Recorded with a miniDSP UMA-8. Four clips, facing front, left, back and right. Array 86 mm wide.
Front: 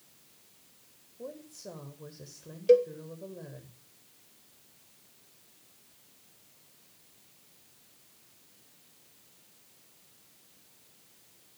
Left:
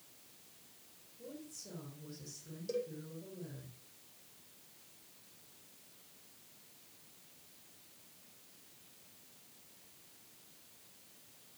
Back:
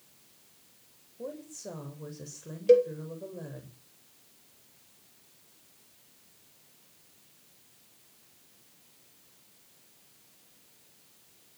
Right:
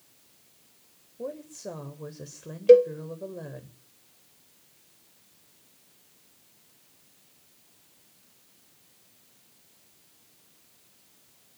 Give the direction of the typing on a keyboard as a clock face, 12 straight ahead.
I don't hear typing on a keyboard.